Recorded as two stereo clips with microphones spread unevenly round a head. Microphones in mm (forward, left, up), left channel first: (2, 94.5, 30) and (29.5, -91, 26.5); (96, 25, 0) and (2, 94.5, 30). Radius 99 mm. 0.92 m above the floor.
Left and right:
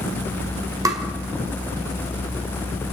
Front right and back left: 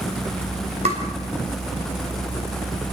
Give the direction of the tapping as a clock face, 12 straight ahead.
5 o'clock.